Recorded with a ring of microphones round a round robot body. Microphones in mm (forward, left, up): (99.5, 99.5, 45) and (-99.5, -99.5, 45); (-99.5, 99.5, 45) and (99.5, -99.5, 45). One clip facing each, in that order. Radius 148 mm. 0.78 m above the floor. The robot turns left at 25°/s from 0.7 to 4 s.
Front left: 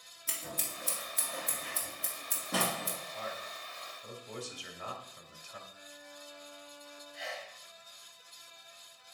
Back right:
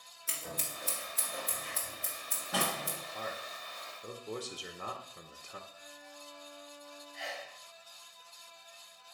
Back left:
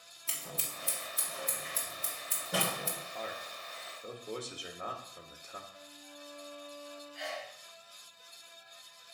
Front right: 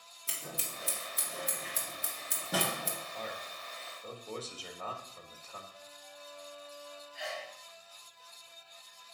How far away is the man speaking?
About 1.1 m.